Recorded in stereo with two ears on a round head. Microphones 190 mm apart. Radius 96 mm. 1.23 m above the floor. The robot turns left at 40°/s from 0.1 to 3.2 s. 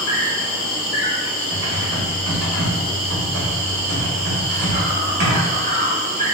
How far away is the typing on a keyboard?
About 1.7 m.